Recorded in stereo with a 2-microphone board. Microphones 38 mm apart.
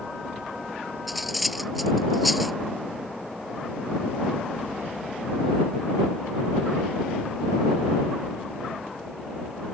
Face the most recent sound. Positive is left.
turn(degrees=0)  # may be behind; listen again after turning